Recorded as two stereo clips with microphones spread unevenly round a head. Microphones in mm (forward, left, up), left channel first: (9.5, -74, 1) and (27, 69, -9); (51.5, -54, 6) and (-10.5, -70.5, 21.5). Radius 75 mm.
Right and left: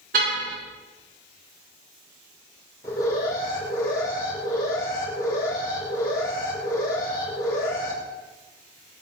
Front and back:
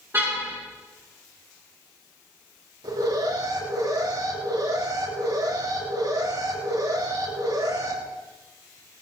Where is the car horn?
120° left, 6.5 m.